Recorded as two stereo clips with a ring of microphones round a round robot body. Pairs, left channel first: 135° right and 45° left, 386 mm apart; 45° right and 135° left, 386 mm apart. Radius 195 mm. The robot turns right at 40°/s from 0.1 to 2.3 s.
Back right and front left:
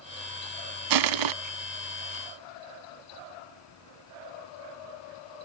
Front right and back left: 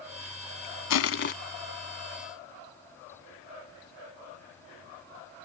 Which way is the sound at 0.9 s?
5° left.